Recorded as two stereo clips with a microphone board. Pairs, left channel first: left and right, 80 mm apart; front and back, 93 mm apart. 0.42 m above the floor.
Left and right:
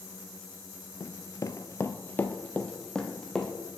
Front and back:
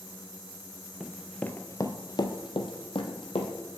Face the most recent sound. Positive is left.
turn(degrees=5)